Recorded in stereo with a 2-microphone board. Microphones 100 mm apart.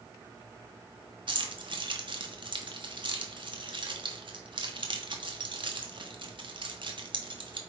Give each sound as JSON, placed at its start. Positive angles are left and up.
{"t": 1.3, "sound": "keys jangling", "side_deg": -55, "distance_m": 1.3}